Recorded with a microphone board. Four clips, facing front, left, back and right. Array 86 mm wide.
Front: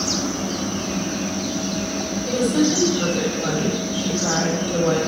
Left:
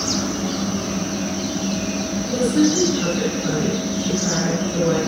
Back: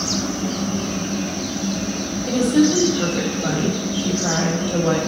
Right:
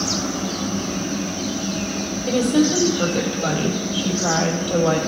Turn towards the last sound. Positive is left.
turn(degrees=-110)